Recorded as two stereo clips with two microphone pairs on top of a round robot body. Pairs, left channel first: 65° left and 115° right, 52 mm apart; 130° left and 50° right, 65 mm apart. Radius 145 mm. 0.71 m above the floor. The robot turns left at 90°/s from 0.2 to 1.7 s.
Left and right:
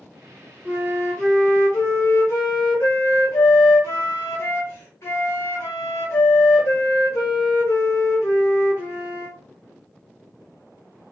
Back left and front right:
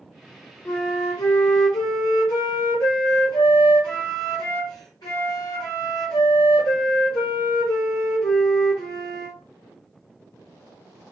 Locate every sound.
0.7 s a flute: 165° right, 0.6 m; by 9.4 s 100° left, 0.6 m